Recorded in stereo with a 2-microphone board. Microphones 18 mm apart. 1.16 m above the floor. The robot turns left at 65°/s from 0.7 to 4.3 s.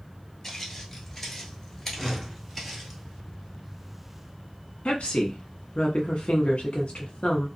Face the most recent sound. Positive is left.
turn(degrees=85)